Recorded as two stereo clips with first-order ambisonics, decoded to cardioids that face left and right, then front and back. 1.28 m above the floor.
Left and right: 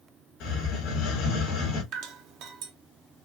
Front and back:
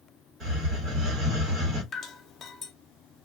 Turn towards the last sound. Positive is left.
turn(degrees=-65)